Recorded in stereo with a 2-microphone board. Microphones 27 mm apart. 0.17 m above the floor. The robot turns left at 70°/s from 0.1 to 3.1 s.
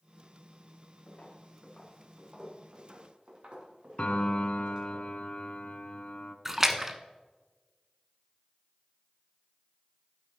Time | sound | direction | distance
1.1 | footsteps | 55° left (ahead or behind) | 2.5 m
4.0 | a piano | 45° left (ahead or behind) | 0.7 m
6.5 | a splash | 20° right (ahead or behind) | 0.7 m